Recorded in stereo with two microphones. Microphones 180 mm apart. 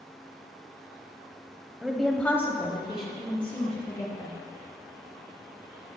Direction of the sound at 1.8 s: 5° right (ahead or behind).